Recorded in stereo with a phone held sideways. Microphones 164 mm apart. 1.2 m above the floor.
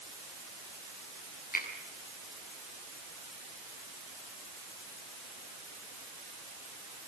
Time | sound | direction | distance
1.5 | a finger snap | 65° left (ahead or behind) | 8 m